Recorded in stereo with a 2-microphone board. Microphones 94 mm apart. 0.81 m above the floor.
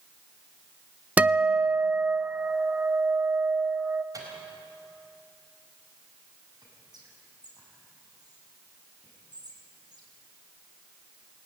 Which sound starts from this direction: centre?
A guitar, at 1.2 s.